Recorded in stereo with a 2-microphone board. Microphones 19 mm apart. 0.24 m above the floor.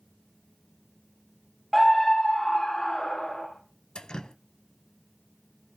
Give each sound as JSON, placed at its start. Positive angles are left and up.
{"t": 1.7, "sound": "a scream", "side_deg": 5, "distance_m": 0.9}
{"t": 4.0, "sound": "dripping", "side_deg": 50, "distance_m": 0.5}